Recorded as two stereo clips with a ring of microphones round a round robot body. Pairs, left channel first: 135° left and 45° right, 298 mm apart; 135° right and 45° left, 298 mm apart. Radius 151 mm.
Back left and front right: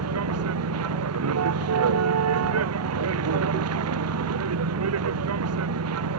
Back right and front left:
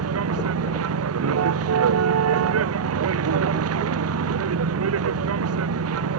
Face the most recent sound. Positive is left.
turn(degrees=0)